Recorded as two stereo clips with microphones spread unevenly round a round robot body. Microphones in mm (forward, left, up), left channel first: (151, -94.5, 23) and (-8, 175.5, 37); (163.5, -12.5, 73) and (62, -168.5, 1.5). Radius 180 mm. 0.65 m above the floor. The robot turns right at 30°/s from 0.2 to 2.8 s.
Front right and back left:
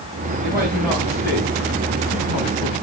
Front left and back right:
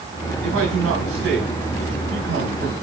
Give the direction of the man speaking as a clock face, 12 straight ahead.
5 o'clock.